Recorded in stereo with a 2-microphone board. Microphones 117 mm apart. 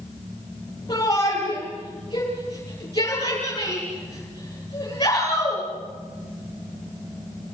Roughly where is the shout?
Left.